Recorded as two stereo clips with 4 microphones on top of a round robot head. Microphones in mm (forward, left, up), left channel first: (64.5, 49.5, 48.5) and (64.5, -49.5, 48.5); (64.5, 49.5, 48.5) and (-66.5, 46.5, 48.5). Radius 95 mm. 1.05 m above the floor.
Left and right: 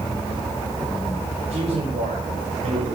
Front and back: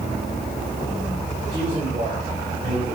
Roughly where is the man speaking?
Right.